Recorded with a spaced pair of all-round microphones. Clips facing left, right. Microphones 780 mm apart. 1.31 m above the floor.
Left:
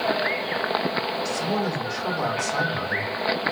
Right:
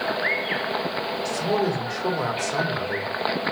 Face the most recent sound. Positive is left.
turn(degrees=-75)  # may be behind; listen again after turning